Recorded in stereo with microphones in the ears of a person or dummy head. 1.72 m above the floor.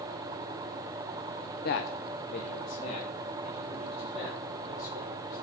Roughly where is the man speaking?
Left.